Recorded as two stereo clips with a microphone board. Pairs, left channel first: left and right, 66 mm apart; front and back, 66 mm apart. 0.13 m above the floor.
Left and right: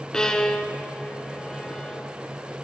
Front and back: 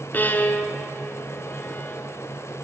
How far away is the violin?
About 0.5 m.